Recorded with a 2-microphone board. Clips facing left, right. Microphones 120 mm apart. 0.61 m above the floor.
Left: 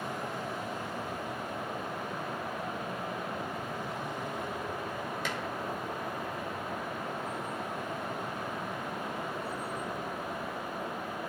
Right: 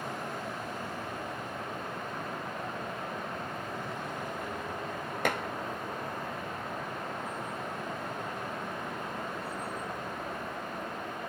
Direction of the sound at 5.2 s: 55° right (ahead or behind).